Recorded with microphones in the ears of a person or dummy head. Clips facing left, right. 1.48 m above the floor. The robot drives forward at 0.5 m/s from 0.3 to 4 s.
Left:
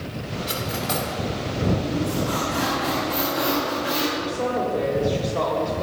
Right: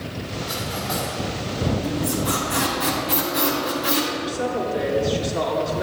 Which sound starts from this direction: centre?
A woman speaking, at 4.2 s.